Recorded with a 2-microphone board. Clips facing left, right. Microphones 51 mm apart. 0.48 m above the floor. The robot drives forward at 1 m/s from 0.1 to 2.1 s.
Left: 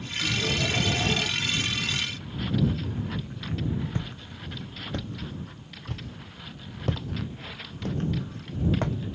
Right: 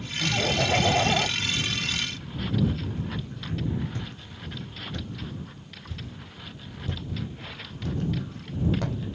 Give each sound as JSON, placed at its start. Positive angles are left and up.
{"t": 0.2, "sound": "laughter", "side_deg": -50, "distance_m": 2.0}
{"t": 1.9, "sound": "footsteps", "side_deg": 15, "distance_m": 3.0}